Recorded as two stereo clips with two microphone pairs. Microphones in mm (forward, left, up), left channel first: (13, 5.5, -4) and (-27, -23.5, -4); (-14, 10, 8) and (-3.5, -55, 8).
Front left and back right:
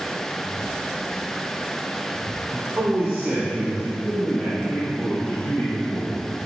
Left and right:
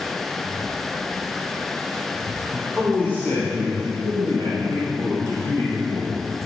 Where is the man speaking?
170° left, 3 m; by 6.4 s 95° left, 5.5 m.